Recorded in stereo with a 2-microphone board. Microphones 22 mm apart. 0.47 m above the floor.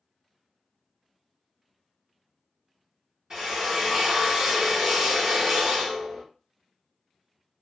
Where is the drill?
20° right (ahead or behind), 1.4 m.